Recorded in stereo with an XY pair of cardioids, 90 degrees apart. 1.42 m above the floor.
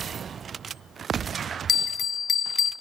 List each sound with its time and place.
1.7 s a bell: 50° left, 0.6 m